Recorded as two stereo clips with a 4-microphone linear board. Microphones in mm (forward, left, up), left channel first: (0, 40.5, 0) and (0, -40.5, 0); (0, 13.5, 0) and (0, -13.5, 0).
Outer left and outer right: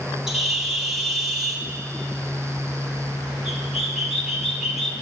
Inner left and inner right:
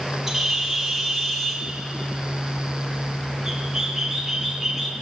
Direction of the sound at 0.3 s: 5° right (ahead or behind).